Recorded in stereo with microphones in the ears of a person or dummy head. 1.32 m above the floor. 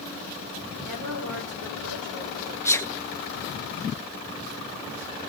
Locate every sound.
0.8 s a woman speaking: 85° right, 3.5 m
2.6 s a sneeze: 15° left (ahead or behind), 0.9 m